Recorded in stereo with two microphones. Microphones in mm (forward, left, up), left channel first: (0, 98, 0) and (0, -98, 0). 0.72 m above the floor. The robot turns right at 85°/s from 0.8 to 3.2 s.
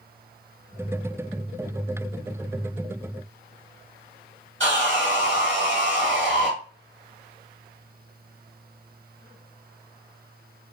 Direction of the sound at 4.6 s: 70° right (ahead or behind).